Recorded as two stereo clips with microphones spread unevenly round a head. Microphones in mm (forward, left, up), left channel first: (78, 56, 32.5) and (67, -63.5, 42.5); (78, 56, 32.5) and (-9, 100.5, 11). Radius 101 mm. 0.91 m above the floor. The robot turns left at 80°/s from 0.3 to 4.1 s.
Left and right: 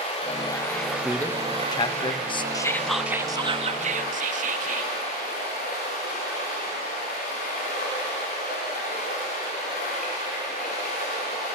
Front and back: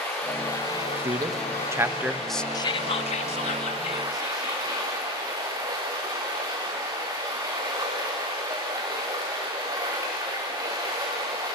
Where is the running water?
40° left, 8 m; by 11.6 s 100° left, 8 m.